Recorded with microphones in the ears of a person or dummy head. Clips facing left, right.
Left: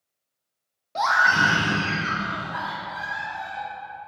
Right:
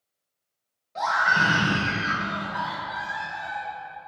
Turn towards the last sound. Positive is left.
turn(degrees=35)  # may be behind; listen again after turning